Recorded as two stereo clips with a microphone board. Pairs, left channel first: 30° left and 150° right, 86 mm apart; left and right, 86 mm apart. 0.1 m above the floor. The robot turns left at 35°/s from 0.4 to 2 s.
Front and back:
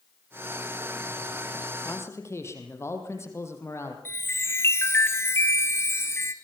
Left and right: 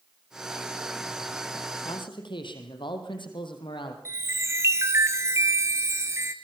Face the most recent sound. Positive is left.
turn(degrees=-30)